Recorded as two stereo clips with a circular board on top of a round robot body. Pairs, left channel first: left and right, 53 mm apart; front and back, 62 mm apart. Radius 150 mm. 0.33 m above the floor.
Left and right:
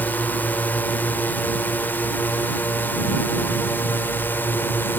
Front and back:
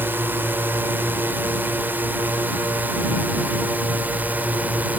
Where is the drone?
135° left; by 5.0 s 125° left.